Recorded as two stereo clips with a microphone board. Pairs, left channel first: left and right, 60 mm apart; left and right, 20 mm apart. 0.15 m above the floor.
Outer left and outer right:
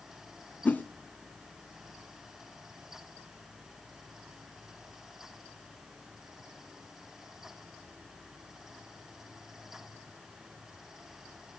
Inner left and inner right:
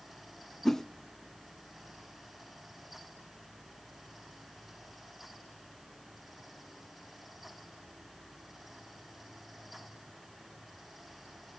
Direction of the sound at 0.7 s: 30° left (ahead or behind).